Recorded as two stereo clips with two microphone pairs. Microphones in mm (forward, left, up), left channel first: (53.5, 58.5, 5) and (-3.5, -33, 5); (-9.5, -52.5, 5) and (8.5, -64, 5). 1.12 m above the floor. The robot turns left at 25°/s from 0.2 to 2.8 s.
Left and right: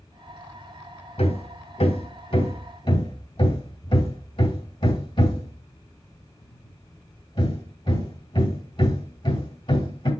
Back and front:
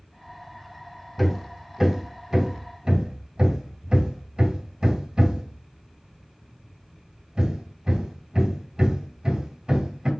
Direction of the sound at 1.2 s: 65° left.